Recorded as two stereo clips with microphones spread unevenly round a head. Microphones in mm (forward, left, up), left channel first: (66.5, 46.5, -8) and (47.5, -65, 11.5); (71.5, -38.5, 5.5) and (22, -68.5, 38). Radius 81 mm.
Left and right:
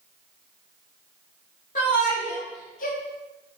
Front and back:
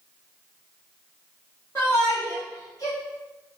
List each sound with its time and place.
1.8 s a shout: 105° left, 3.5 m; by 3.0 s 100° left, 2 m